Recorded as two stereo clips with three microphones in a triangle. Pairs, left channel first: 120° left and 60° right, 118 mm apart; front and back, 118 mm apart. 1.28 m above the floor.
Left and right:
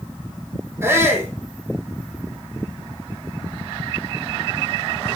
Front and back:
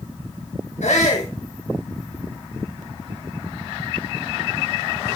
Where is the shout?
10° left, 4 m.